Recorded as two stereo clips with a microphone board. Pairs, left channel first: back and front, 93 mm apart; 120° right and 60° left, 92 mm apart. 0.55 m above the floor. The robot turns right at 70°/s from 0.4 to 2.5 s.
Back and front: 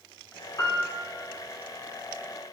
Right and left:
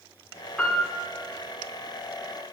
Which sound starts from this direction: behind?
A piano, at 0.6 s.